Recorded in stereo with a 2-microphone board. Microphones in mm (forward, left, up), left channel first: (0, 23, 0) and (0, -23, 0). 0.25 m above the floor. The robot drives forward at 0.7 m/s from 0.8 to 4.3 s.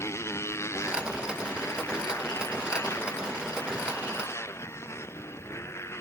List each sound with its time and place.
0.0 s a motorcycle: 75° left (ahead or behind); by 6.0 s 70° left (ahead or behind)